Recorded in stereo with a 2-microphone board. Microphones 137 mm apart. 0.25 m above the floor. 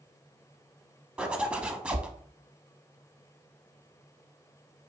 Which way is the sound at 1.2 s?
5° right (ahead or behind).